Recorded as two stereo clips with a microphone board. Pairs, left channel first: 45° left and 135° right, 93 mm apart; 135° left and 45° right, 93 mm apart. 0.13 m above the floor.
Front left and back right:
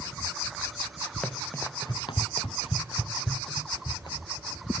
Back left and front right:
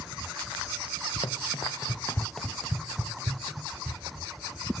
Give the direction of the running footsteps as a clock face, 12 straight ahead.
8 o'clock.